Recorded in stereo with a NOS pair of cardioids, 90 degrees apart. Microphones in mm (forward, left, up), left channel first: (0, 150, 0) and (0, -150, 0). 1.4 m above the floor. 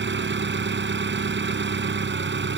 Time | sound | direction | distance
0.0 | an engine running | 35° right | ?